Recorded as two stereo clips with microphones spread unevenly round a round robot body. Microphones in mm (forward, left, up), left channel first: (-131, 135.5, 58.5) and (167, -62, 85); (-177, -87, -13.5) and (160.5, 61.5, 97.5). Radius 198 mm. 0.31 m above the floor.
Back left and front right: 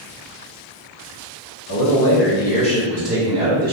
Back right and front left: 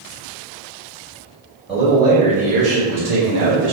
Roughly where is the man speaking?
Behind left.